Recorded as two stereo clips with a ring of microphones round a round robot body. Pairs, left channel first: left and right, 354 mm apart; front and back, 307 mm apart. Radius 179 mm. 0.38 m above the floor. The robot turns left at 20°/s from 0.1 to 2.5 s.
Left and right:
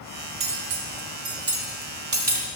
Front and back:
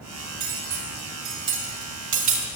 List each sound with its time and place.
0.4 s cutlery clinking: 115° right, 1.3 m; by 2.5 s 160° right, 1.3 m